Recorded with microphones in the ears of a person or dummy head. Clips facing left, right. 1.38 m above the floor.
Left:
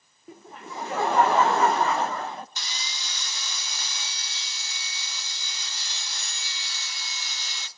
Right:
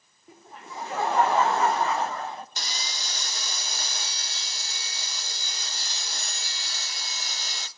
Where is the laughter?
65° left (ahead or behind), 0.8 m.